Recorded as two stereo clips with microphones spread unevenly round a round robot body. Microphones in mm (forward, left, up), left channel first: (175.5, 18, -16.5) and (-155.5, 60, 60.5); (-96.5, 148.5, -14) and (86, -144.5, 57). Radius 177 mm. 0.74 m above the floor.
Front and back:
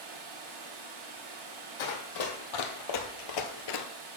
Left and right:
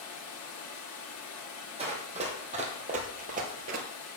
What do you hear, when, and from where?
0.0 s running water: 160° left, 1.4 m
1.8 s running footsteps: 10° left, 2 m; by 3.9 s 20° right, 0.9 m